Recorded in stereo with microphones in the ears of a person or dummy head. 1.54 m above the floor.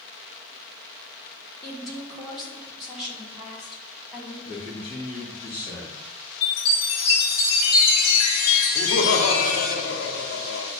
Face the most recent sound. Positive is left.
turn(degrees=75)  # may be behind; listen again after turning